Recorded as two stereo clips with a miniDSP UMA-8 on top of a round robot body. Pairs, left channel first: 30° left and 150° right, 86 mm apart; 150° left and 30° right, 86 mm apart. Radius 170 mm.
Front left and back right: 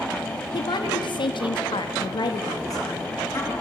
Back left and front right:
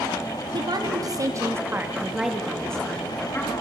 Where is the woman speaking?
Straight ahead, 3 m; by 3.5 s 90° left, 3 m.